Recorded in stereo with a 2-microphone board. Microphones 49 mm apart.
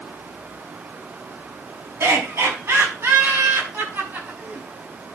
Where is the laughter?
70° right (ahead or behind), 5.5 m; by 4.7 s 40° right (ahead or behind), 5 m.